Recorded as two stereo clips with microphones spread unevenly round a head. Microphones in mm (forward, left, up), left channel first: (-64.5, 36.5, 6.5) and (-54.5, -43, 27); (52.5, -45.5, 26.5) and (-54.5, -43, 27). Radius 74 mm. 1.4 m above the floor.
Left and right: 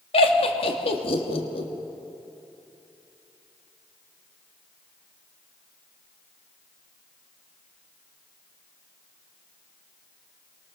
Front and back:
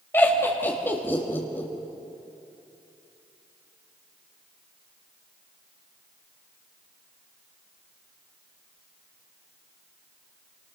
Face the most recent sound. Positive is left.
turn(degrees=75)